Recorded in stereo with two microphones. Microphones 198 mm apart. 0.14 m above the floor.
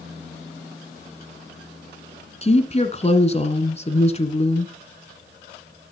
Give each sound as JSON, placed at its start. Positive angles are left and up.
{"t": 2.4, "sound": "a woman speaking", "side_deg": 30, "distance_m": 1.6}